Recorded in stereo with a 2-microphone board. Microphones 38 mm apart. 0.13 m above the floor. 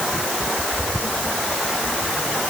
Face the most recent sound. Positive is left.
No sound to turn to.